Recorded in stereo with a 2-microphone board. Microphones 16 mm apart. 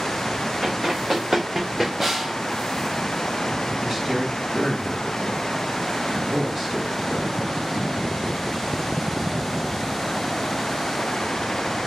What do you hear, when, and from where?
0.6 s running footsteps: 50° right (ahead or behind), 1.7 m; by 1.9 s 25° right (ahead or behind), 2 m
2.0 s a snare drum: 25° right (ahead or behind), 1.2 m
3.8 s a man speaking: 30° right (ahead or behind), 1.3 m